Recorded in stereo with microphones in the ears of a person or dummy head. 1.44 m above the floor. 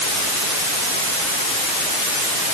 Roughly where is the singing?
No singing in this recording.